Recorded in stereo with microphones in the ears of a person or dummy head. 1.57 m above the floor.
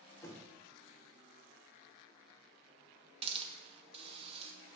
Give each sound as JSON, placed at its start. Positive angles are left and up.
{"t": 0.2, "sound": "knocking", "side_deg": 15, "distance_m": 3.0}
{"t": 3.2, "sound": "a hiss", "side_deg": -35, "distance_m": 1.9}